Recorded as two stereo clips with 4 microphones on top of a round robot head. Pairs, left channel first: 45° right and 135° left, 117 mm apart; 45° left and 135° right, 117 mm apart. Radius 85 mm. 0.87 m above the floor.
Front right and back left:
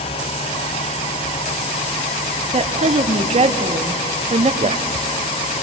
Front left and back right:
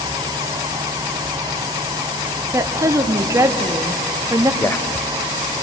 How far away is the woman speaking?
About 1.5 m.